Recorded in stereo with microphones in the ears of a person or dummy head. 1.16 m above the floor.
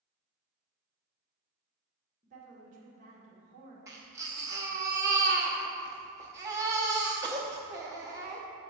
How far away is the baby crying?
About 0.8 m.